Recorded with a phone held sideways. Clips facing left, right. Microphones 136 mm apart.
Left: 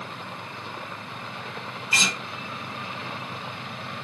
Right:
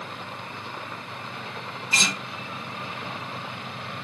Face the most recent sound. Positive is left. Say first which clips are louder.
# even
turn(degrees=5)  # may be behind; listen again after turning